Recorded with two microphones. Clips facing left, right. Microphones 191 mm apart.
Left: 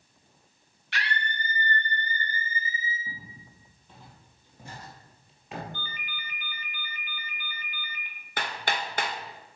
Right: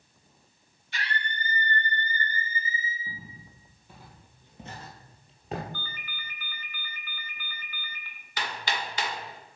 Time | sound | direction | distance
0.9 | a scream | 85° left | 1.5 m
3.1 | footsteps | centre (ahead or behind) | 2.5 m
5.7 | a ringtone | 20° left (ahead or behind) | 1.1 m
8.4 | hammering | 55° left (ahead or behind) | 0.9 m